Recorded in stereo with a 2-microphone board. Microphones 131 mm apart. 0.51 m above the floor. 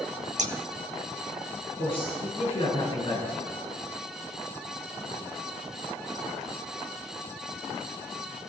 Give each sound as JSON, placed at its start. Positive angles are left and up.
{"t": 0.4, "sound": "scissors", "side_deg": -65, "distance_m": 0.7}
{"t": 1.8, "sound": "a man speaking", "side_deg": 45, "distance_m": 4.5}